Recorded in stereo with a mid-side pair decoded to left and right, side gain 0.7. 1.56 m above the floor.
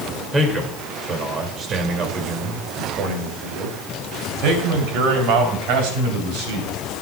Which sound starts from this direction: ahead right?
A man speaking, at 0.3 s.